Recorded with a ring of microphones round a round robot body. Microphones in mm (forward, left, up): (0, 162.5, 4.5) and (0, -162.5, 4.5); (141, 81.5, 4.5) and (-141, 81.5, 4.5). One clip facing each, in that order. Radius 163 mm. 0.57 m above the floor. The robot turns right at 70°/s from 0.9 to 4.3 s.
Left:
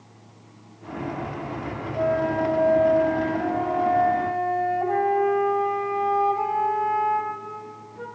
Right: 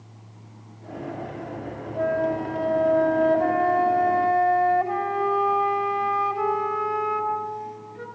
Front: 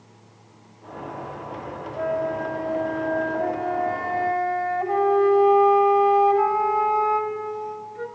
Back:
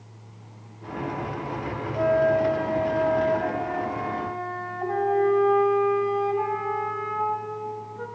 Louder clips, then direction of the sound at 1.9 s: Left 1 dB, back 5 dB; 150° left.